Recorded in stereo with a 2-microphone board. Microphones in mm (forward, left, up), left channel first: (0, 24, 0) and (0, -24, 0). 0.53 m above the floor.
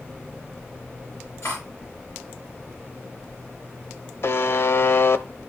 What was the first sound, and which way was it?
Cutlery clinking, 75° left (ahead or behind).